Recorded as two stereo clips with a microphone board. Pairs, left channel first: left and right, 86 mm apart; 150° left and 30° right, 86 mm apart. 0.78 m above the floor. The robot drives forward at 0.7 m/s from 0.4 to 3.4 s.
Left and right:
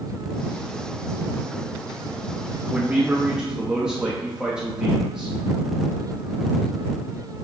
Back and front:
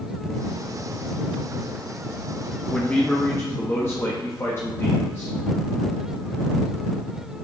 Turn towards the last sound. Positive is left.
turn(degrees=-165)